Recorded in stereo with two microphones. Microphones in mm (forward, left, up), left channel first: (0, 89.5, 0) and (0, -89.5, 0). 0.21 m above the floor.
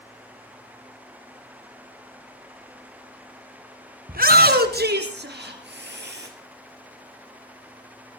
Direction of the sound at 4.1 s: 55° right (ahead or behind).